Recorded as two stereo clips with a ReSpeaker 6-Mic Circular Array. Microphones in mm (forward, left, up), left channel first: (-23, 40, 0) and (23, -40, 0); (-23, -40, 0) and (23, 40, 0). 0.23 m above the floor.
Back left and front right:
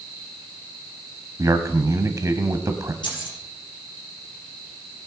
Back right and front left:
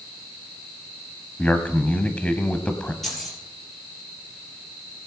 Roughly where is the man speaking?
Ahead right.